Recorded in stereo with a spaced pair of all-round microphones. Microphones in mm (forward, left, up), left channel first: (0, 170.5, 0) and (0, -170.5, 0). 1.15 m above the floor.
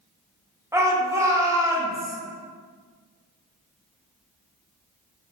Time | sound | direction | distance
0.7 | a shout | 10° right (ahead or behind) | 0.7 m